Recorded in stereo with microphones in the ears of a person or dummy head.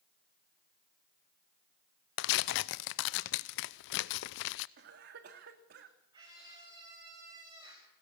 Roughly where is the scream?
Right.